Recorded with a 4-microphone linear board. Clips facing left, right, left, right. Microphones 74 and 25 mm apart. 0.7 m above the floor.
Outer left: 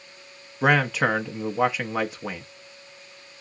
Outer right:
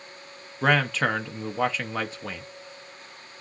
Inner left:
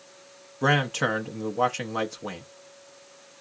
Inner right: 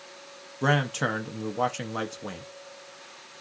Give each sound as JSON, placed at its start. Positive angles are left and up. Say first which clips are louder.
{"t": 0.6, "sound": "a man speaking", "louder": "outer left 2 dB, inner left 2 dB", "side_deg": 10, "distance_m": 0.5}